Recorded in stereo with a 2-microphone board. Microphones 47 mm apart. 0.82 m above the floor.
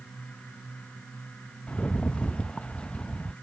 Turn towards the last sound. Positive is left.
turn(degrees=25)  # may be behind; listen again after turning